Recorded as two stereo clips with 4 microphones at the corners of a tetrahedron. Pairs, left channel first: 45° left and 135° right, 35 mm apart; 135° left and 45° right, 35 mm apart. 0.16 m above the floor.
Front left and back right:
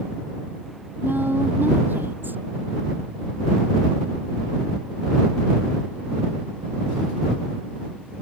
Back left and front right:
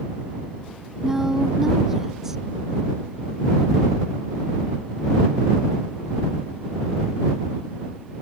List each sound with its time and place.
1.0 s a woman speaking: 125° right